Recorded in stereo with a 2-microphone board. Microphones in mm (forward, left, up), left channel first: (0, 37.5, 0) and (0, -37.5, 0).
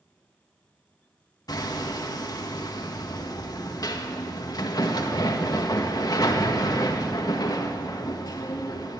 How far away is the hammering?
About 1.7 m.